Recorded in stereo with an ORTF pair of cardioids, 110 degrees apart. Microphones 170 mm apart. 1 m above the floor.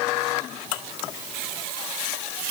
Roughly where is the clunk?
I don't hear a clunk.